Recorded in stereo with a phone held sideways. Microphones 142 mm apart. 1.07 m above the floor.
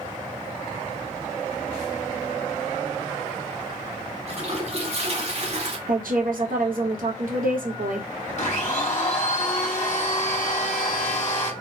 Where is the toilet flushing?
45° right (ahead or behind), 0.8 m.